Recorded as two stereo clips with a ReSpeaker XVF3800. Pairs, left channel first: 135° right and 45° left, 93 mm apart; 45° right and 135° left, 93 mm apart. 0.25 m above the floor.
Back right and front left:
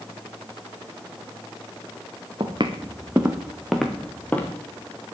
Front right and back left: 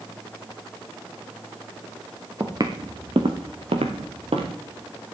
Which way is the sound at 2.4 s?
80° left.